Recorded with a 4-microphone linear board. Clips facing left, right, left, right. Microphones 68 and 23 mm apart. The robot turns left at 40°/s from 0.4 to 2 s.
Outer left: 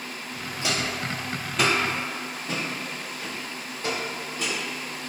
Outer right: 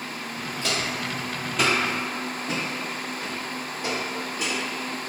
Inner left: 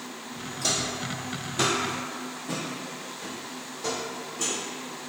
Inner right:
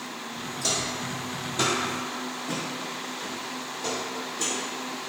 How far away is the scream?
No scream in this recording.